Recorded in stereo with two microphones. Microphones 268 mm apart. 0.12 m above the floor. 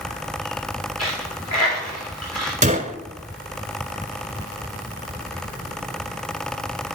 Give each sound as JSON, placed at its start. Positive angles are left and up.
{"t": 1.0, "sound": "a dropped coin", "side_deg": 80, "distance_m": 3.5}
{"t": 2.6, "sound": "a gunshot", "side_deg": -30, "distance_m": 0.6}